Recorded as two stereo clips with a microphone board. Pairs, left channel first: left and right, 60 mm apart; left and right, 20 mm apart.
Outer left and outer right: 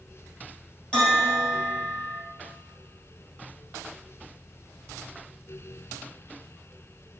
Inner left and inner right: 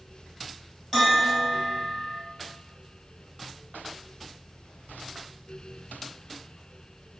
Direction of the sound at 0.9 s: 15° left (ahead or behind).